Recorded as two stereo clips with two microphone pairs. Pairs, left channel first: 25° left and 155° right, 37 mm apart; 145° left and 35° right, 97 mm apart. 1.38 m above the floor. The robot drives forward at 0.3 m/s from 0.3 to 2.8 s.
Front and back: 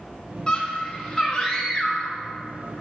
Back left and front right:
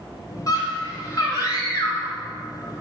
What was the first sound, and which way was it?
A scream, 95° left.